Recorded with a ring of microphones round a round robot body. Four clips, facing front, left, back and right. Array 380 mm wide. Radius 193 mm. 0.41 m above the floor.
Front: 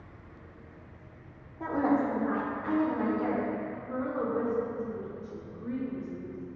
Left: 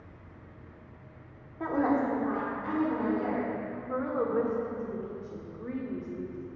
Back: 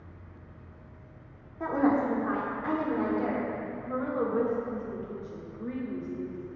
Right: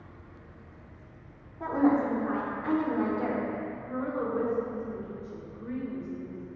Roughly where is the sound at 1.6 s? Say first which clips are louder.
Right 2 dB, back 2 dB; behind left.